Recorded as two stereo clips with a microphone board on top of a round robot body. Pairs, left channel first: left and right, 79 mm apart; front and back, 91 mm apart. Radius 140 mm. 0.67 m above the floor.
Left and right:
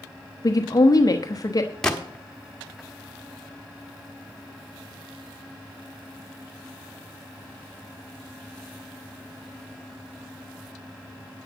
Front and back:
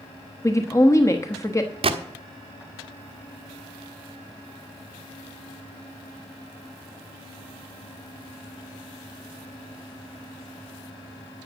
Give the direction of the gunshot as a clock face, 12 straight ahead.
6 o'clock.